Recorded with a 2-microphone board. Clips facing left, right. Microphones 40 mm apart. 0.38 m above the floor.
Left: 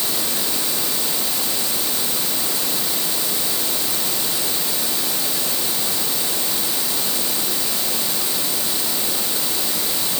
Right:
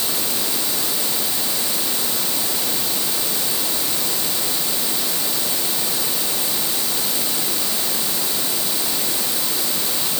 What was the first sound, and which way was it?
Only background noise.